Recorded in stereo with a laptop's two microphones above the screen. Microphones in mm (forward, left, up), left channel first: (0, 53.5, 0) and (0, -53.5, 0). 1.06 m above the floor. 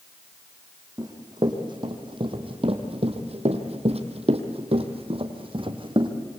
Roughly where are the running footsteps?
Right.